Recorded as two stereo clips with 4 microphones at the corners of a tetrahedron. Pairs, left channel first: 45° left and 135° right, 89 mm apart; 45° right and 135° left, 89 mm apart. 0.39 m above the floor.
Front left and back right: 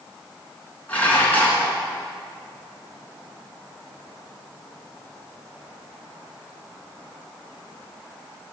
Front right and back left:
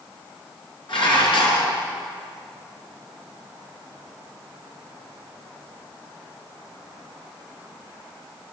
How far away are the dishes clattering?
About 4 m.